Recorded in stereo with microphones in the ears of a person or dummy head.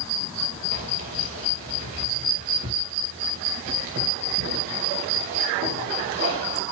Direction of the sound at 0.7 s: 50° right (ahead or behind).